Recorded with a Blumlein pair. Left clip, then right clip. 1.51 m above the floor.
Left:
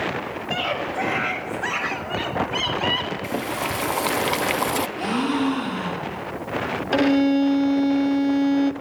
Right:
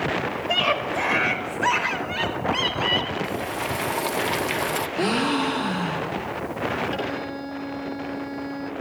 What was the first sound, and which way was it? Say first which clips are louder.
A scream: right 3 dB; 25° right.